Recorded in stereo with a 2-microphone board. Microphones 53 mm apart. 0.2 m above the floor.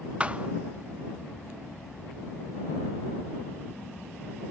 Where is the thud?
25° right (ahead or behind).